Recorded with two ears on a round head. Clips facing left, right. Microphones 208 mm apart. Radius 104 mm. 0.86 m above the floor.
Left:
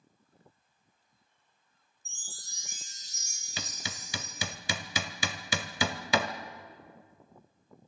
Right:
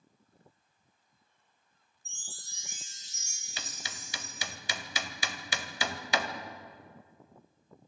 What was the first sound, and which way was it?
A chime, 35° left (ahead or behind).